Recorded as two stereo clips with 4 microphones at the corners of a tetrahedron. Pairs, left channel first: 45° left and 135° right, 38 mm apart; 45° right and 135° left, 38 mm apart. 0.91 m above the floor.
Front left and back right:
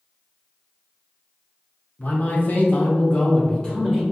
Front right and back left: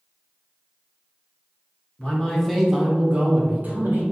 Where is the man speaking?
15° left, 0.8 m; by 4.0 s 120° left, 1.0 m.